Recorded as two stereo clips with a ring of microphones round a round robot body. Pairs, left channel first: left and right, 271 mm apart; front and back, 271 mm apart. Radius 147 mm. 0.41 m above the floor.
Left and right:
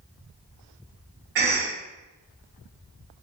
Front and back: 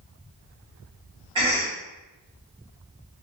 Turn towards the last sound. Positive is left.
turn(degrees=-115)